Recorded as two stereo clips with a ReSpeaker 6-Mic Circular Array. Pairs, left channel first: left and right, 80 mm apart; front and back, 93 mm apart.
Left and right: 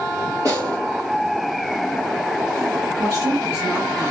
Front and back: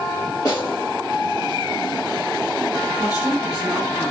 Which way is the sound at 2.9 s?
Straight ahead.